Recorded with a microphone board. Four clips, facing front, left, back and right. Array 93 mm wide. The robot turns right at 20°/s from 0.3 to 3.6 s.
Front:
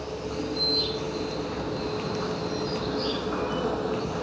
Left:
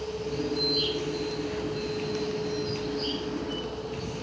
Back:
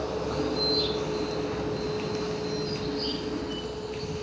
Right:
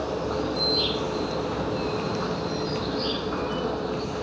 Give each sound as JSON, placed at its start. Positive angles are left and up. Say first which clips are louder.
{"t": 0.0, "sound": "an insect", "louder": "right 4 dB, back 3 dB", "azimuth_deg": -105}